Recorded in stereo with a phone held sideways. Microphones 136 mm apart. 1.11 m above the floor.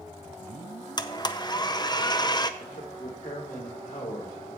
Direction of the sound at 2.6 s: 80° left.